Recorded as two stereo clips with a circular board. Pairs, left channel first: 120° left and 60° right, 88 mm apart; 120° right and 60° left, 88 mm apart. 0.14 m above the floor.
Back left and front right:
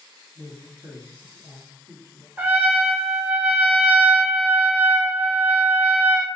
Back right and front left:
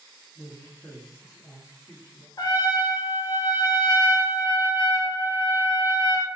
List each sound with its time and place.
0.3 s a man speaking: 80° right, 1.7 m
2.4 s a trumpet: 125° right, 0.7 m